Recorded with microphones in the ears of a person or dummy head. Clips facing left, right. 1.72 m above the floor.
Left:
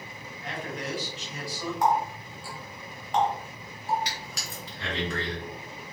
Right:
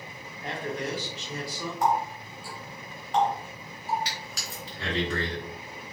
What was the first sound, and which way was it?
A man speaking, 35° right (ahead or behind).